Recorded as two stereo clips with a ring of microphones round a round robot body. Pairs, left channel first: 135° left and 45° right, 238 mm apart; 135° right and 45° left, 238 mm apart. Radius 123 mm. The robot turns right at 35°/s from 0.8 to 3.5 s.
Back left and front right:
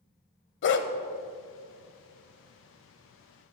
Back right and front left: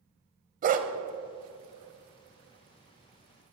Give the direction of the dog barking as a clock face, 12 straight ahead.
9 o'clock.